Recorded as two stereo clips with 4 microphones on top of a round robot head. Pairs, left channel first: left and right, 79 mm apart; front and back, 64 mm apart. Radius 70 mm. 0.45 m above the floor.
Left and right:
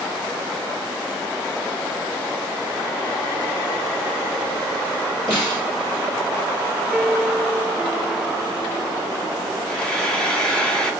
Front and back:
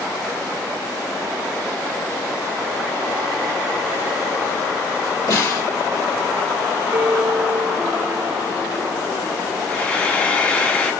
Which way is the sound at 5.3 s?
10° left.